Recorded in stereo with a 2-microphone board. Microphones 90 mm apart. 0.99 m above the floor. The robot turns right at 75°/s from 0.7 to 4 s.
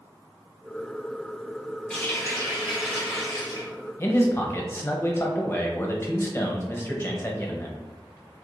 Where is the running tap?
10° left, 1.5 m; by 3.7 s 145° left, 1.5 m.